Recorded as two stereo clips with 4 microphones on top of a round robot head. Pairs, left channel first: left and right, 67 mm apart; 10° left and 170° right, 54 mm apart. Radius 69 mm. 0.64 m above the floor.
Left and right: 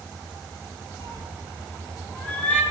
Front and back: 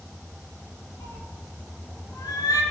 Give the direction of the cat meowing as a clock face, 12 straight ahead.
11 o'clock.